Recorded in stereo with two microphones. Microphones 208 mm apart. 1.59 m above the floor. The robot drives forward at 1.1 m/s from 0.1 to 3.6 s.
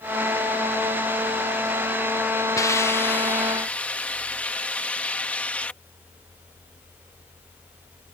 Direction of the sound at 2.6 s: 15° left (ahead or behind).